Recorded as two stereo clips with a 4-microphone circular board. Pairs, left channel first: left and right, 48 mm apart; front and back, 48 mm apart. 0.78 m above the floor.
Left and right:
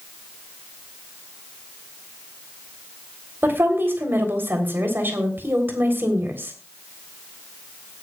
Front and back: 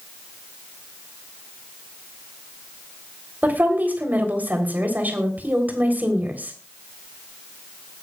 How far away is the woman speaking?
About 3.5 m.